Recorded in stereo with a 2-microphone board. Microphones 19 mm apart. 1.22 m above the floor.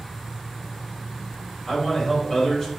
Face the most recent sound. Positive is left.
turn(degrees=35)  # may be behind; listen again after turning